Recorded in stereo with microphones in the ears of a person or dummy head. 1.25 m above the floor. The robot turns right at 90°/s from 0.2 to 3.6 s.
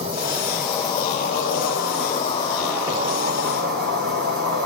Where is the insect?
40° right, 4 m; by 4.7 s 95° right, 4 m.